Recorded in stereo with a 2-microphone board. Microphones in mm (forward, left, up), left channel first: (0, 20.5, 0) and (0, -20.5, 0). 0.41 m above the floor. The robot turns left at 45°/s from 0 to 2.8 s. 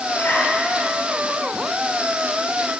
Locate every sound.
0.1 s a zipper: 65° left (ahead or behind), 9.5 m; by 0.5 s 80° left, 9.5 m